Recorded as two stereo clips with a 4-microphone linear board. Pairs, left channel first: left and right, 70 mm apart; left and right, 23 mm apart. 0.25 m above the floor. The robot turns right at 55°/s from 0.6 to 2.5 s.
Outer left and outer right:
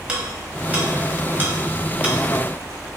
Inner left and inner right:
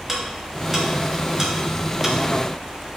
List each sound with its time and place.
0.1 s ticking: 15° right (ahead or behind), 0.8 m